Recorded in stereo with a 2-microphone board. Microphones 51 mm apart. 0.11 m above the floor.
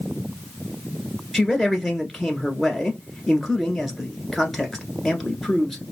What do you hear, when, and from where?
1.3 s a man speaking: centre (ahead or behind), 1.2 m